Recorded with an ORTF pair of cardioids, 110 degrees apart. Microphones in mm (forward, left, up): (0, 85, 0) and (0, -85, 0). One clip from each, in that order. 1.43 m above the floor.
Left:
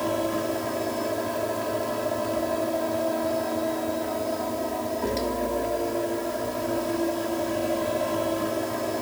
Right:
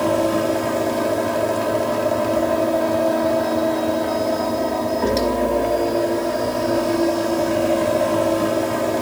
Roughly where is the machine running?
Ahead right.